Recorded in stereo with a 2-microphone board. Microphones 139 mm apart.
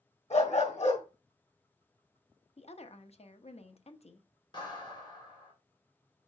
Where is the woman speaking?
50° left (ahead or behind), 0.7 m.